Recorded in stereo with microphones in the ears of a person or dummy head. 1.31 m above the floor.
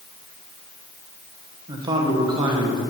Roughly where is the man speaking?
Right.